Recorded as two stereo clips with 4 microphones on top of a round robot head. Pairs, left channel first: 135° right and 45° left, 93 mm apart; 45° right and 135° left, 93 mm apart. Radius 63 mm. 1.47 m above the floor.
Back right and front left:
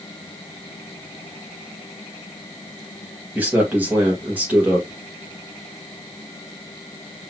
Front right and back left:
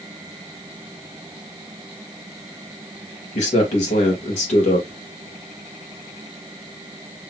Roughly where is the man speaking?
Ahead right.